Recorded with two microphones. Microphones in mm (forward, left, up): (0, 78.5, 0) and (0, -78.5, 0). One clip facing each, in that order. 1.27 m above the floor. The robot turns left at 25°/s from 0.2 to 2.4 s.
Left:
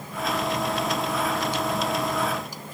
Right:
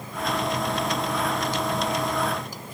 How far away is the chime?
I don't hear a chime.